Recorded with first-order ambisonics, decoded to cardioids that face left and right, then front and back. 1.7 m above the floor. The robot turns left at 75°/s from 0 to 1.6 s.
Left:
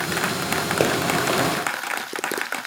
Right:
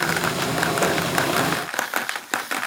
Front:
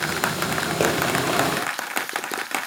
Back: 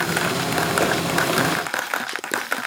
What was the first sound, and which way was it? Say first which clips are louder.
A pop: left 2 dB, front 3 dB; 70° left.